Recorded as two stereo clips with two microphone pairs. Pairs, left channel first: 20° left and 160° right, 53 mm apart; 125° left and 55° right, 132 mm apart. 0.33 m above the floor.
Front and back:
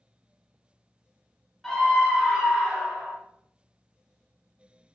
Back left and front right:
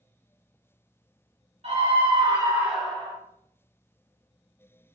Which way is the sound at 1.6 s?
70° right.